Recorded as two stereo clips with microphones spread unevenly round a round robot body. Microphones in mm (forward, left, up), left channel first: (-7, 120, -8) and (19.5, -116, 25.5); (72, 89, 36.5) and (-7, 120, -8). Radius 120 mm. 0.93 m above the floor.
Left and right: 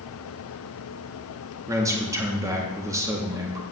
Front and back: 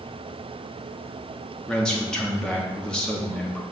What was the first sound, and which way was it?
A man speaking, 160° right.